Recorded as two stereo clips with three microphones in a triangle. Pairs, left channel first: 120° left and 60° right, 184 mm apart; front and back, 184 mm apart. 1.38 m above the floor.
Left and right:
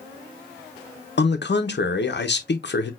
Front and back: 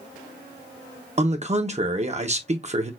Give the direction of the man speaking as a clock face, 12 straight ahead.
8 o'clock.